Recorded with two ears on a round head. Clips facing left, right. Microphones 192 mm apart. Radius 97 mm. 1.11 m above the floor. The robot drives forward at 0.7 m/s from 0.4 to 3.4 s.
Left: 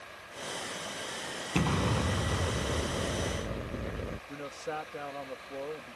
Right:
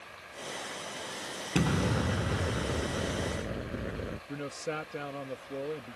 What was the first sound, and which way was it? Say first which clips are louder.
An explosion: right 1 dB; 10° right (ahead or behind).